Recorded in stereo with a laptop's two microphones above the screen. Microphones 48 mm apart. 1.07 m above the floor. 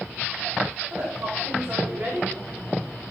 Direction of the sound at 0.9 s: 65° right (ahead or behind).